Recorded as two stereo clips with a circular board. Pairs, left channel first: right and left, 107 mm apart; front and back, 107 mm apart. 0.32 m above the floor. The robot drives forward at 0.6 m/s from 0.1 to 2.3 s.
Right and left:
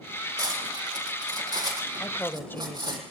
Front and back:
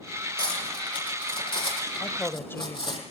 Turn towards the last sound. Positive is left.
turn(degrees=-40)